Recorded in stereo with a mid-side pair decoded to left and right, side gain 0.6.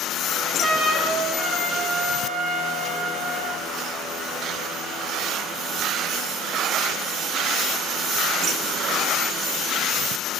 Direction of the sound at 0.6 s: 15° right.